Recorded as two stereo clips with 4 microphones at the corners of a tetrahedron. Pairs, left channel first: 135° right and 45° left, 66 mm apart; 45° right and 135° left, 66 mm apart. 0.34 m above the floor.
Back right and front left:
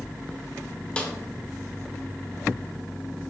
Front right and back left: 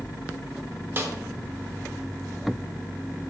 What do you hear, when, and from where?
1.0 s a snare drum: 160° left, 1.5 m